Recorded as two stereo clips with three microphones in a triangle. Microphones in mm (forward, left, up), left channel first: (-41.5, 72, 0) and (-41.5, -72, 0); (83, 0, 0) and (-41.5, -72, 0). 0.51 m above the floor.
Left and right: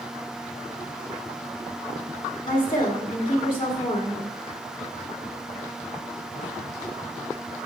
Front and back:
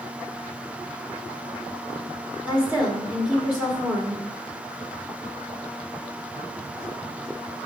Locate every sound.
2.5 s a woman speaking: 130° left, 1.2 m